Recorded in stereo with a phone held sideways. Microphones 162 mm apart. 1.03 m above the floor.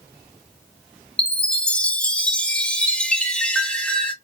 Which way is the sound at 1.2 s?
5° left (ahead or behind).